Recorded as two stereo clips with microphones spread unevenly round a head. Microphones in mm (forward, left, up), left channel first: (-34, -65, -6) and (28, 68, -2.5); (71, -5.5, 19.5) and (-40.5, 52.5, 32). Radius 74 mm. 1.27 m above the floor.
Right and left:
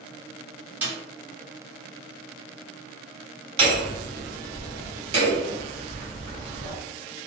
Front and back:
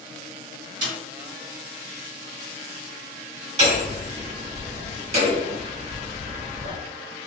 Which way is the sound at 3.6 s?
115° left.